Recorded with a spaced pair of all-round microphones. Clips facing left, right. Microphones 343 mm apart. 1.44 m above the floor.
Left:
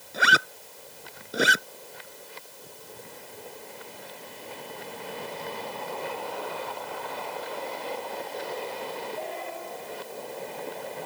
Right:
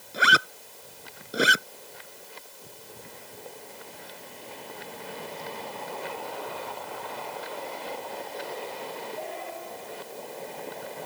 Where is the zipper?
Centre (ahead or behind).